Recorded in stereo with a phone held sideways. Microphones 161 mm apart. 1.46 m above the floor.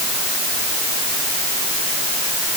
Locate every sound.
Only background noise.